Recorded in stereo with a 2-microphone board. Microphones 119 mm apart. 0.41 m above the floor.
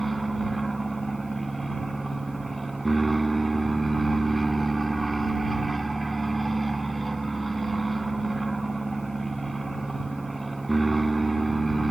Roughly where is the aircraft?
Centre.